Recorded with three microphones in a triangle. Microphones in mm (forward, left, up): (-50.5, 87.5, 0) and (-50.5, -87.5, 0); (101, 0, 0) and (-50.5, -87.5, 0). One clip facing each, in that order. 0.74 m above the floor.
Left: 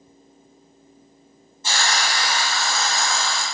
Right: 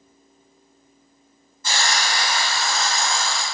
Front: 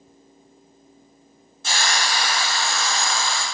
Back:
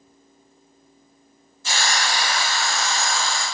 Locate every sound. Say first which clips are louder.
1.6 s a hiss: even, even; 25° left, 0.8 m